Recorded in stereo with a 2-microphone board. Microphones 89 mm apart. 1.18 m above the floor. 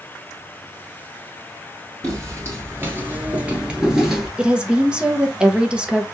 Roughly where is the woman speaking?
Centre.